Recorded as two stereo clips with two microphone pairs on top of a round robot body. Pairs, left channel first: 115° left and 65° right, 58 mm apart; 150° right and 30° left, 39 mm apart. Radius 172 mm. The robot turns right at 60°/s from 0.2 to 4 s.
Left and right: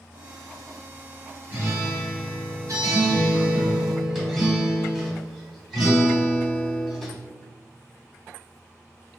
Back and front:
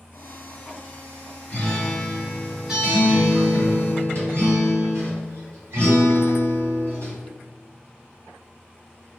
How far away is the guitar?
About 1.5 m.